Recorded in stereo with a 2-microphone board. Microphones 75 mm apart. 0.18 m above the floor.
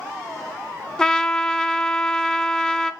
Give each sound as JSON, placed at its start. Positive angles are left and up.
{"t": 1.0, "sound": "a trumpet", "side_deg": 10, "distance_m": 0.6}